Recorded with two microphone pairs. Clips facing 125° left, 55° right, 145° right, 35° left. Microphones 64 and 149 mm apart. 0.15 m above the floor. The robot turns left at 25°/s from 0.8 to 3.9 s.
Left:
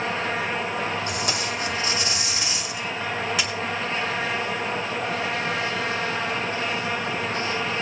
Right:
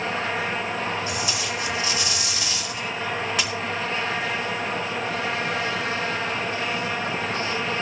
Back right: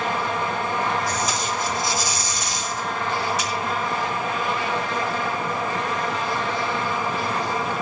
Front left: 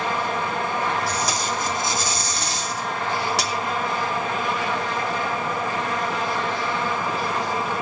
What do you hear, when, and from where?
1.1 s tape being pulled: 95° left, 2.5 m; by 3.5 s 35° left, 2.5 m